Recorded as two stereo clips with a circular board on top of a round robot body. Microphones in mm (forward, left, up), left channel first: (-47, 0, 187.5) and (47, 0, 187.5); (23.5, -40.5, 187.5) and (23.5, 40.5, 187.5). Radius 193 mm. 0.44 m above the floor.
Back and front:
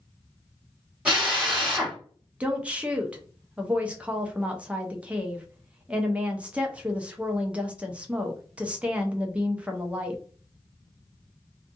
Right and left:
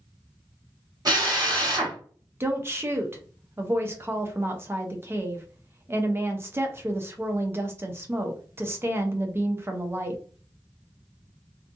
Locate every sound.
1.1 s a drill: 75° left, 2 m
2.4 s a woman speaking: 65° left, 0.8 m